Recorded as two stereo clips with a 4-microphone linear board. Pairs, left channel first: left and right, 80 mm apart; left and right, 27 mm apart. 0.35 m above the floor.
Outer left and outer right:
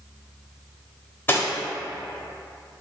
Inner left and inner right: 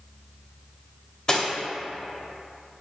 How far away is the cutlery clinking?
About 0.7 m.